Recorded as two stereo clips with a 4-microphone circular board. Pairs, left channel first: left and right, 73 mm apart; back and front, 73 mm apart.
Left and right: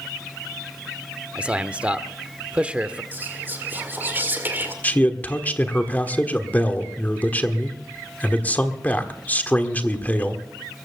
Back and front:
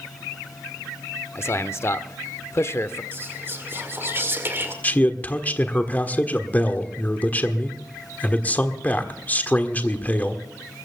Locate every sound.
1.4 s a man speaking: 160° right, 0.9 m
3.1 s whispering: 40° right, 1.9 m
4.8 s a man speaking: 135° left, 1.4 m